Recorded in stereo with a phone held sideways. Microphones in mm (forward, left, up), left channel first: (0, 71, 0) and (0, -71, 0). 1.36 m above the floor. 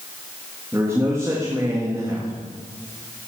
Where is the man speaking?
20° right (ahead or behind), 2 m.